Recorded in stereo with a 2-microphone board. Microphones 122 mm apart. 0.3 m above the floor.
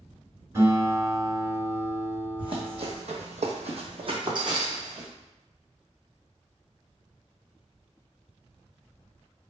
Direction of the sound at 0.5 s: 25° right (ahead or behind).